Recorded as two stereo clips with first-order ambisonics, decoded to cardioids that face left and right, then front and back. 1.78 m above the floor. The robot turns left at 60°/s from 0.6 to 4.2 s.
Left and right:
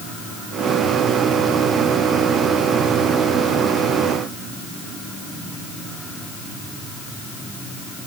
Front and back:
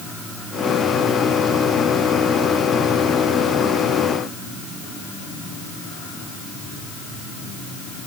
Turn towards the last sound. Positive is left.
No sound to turn to.